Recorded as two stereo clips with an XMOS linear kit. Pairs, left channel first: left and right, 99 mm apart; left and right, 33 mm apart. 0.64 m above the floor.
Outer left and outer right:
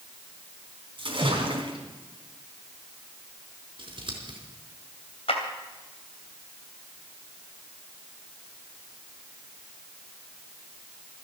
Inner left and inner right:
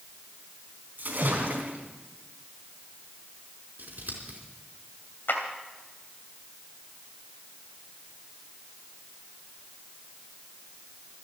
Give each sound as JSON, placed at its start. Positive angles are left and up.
{"t": 1.0, "sound": "a splash", "side_deg": -60, "distance_m": 4.0}
{"t": 3.8, "sound": "scissors", "side_deg": -60, "distance_m": 4.5}
{"t": 5.3, "sound": "a clap", "side_deg": 80, "distance_m": 3.0}